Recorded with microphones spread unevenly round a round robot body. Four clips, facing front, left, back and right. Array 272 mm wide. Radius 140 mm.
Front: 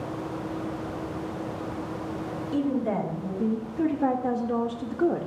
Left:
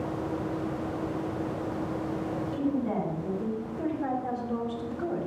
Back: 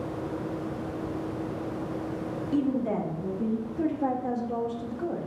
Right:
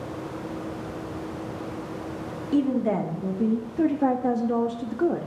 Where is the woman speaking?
110° right, 1.7 m; by 5.3 s 35° right, 1.0 m.